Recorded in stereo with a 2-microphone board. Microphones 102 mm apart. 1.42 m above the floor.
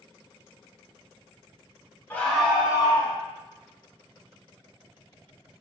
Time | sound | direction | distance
2.1 | a scream | 20° left (ahead or behind) | 0.8 m